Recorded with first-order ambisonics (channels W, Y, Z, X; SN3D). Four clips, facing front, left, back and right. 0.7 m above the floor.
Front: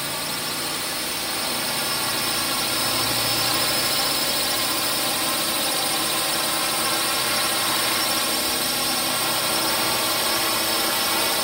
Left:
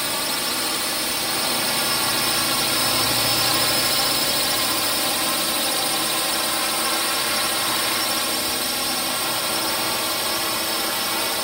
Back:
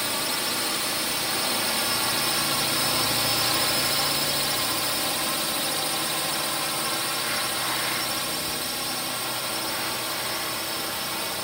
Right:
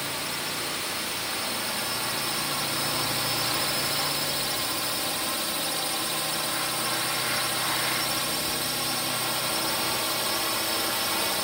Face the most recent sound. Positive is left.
turn(degrees=25)